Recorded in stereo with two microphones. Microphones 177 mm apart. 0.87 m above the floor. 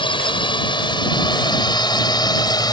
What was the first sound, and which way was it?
A drone, 30° left (ahead or behind).